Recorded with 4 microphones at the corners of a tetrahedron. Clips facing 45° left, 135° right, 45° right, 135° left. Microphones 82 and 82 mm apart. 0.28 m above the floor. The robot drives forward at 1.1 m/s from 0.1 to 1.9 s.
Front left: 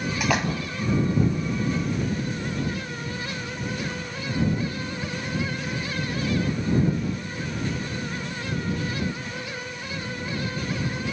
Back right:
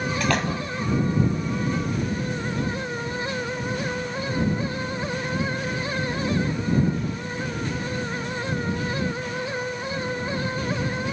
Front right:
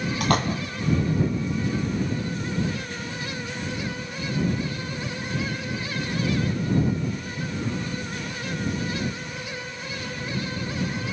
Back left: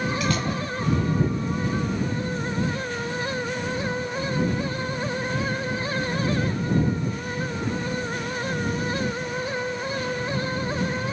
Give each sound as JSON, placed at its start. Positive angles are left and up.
{"t": 0.2, "sound": "a splash", "azimuth_deg": -35, "distance_m": 2.5}